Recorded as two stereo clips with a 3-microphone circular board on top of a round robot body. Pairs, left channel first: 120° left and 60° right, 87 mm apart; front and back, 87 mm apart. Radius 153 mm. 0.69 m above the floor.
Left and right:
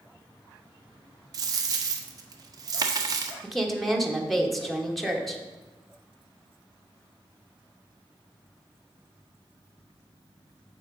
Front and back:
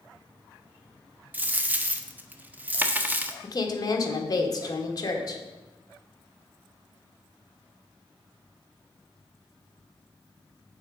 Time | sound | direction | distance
1.3 | a dropped coin | 110° right | 0.6 m
3.4 | a woman speaking | 30° left | 1.5 m